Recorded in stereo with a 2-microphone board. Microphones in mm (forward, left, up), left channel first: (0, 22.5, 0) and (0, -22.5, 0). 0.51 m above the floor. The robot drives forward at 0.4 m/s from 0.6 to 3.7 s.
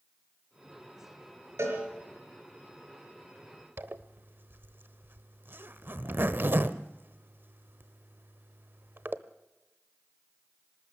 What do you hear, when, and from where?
1.6 s a cowbell: 85° right, 4.5 m
3.8 s a zipper: 55° right (ahead or behind), 0.9 m